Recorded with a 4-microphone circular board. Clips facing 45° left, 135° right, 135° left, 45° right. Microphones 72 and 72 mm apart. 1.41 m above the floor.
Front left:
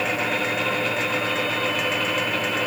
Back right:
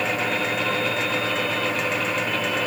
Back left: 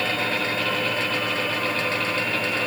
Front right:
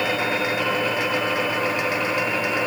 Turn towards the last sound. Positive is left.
No sound to turn to.